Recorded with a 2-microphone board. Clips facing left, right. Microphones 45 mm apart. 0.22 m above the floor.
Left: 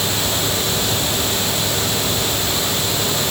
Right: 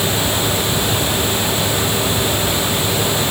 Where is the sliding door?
I don't hear a sliding door.